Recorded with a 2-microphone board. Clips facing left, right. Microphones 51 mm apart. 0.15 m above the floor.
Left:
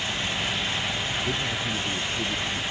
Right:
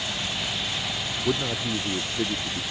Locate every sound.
1.2 s a man speaking: 50° right (ahead or behind); by 2.6 s 45° right (ahead or behind)